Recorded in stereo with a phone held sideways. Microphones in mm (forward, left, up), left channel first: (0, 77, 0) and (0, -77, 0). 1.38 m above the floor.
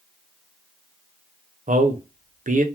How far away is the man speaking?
About 0.6 m.